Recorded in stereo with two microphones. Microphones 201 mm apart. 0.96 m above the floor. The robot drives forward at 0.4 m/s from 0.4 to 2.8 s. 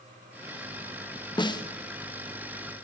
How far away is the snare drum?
About 1.3 m.